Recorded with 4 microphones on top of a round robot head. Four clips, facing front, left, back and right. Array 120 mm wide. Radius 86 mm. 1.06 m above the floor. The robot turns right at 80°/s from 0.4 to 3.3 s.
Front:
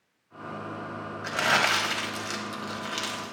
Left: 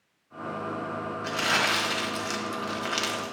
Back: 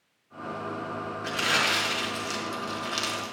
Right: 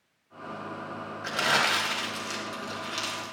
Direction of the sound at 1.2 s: 35° right.